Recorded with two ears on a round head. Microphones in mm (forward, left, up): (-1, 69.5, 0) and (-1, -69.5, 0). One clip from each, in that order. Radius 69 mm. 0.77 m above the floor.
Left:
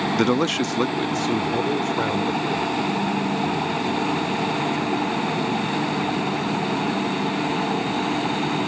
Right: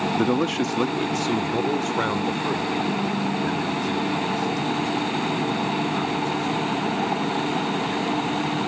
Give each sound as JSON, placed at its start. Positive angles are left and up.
{"t": 0.1, "sound": "a man speaking", "side_deg": 55}